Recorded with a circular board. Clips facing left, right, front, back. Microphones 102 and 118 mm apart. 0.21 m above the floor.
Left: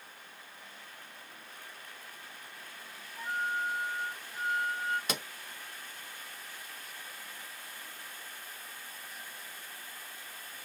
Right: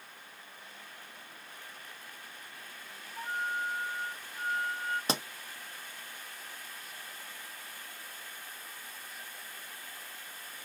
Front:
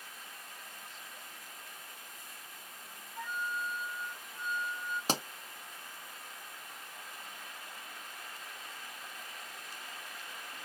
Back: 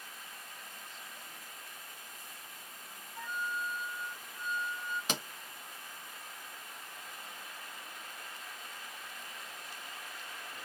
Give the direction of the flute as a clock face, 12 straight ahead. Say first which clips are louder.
Left 1 dB, even; 3 o'clock.